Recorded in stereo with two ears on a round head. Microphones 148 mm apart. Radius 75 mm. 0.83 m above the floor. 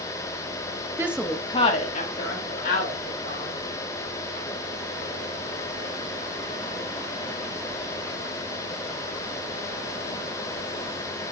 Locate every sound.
1.0 s a woman speaking: 20° right (ahead or behind), 1.0 m; by 3.6 s 75° left (ahead or behind), 4 m